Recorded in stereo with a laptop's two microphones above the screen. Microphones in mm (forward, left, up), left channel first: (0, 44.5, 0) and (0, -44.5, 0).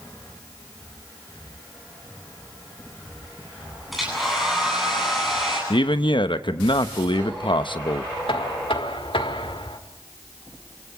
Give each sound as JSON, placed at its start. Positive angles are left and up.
{"t": 3.9, "sound": "a hair dryer", "side_deg": 0, "distance_m": 9.0}
{"t": 5.7, "sound": "a man speaking", "side_deg": 65, "distance_m": 1.0}
{"t": 8.3, "sound": "knocking", "side_deg": 80, "distance_m": 1.7}